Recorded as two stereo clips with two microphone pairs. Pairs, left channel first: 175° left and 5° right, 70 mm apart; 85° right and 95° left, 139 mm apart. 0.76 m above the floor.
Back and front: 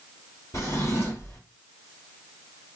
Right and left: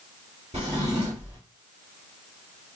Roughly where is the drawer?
Behind left.